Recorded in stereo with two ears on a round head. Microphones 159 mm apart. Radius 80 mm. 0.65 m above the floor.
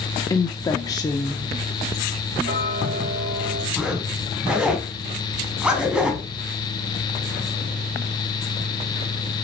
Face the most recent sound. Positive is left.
turn(degrees=-5)  # may be behind; listen again after turning